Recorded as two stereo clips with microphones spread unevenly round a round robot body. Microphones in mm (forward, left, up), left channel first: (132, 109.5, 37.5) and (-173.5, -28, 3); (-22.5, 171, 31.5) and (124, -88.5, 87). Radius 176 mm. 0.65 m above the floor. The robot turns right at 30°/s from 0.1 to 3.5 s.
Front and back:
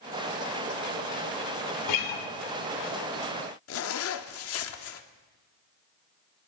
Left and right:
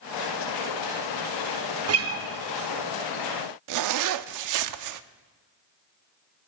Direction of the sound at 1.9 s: 20° right.